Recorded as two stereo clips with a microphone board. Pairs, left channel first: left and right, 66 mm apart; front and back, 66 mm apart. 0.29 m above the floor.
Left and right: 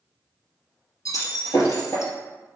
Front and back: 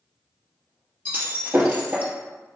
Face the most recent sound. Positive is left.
turn(degrees=120)